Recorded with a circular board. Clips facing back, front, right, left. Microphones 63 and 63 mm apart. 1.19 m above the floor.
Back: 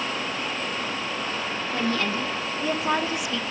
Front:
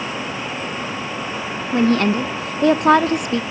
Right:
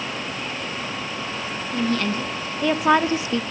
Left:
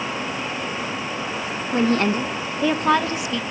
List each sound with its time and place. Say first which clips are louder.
1.7 s a woman speaking: front 10 dB, left 4 dB; 45° left, 0.8 m; by 3.4 s 40° right, 0.5 m